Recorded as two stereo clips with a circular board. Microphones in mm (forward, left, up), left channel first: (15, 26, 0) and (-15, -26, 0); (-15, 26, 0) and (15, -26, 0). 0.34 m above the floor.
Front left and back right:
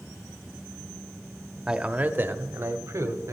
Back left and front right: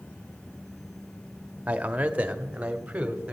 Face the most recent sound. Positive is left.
turn(degrees=-130)